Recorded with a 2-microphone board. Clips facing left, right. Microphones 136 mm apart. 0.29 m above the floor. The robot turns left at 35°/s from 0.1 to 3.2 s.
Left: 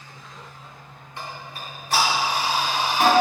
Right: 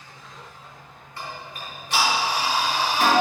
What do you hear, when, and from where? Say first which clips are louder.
1.2 s ticking: even; 20° left (ahead or behind), 3 m; by 3.1 s 65° left (ahead or behind), 3 m